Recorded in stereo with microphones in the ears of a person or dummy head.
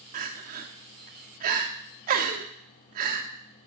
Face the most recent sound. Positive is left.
turn(degrees=-45)  # may be behind; listen again after turning